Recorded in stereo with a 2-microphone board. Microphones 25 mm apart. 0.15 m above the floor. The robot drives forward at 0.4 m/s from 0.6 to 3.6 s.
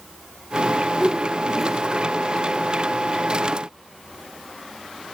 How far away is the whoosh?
About 3.5 m.